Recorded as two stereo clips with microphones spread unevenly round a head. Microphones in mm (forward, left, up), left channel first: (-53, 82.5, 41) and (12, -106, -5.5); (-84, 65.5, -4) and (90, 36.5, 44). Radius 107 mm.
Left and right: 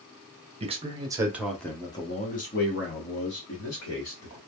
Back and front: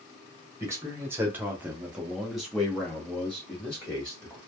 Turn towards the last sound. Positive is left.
turn(degrees=100)